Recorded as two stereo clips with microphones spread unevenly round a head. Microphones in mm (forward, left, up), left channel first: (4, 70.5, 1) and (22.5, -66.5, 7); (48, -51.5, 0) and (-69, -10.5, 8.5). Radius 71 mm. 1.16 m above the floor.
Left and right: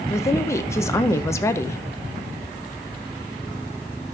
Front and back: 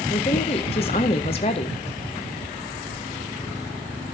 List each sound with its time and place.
0.1 s a woman speaking: 30° left, 0.9 m